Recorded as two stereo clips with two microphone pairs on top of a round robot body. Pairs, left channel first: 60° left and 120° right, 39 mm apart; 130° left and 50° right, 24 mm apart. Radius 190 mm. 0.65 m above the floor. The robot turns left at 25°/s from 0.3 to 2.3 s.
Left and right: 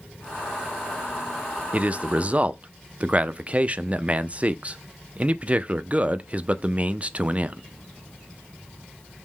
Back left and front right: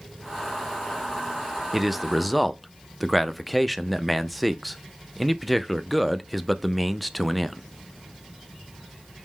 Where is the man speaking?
120° right, 0.5 m; by 7.6 s 135° right, 0.5 m.